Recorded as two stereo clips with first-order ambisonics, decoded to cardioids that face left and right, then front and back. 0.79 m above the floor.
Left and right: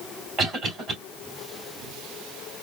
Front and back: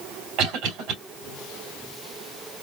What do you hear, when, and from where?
0.4 s a cough: 155° right, 2.5 m